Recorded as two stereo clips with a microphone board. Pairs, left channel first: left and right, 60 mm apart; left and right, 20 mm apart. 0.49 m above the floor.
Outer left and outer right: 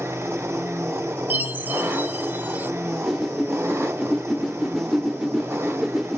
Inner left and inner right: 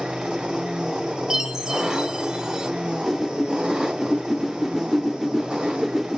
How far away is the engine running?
About 1.6 m.